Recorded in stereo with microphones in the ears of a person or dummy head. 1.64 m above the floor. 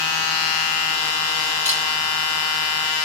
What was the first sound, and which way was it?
Cutlery clinking, 5° left (ahead or behind).